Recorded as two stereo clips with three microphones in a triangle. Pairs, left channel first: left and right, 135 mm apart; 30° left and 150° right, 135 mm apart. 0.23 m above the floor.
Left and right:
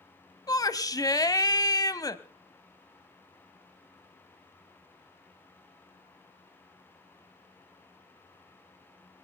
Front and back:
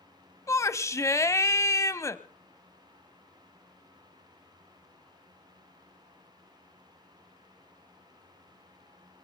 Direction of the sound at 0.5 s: 70° left.